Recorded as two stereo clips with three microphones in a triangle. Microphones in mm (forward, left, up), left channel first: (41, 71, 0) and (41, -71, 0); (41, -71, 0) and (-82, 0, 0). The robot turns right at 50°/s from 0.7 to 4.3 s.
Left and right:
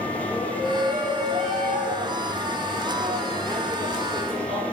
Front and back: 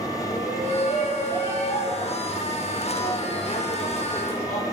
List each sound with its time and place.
0.3 s a shout: 135° right, 8 m; by 4.6 s 45° left, 8 m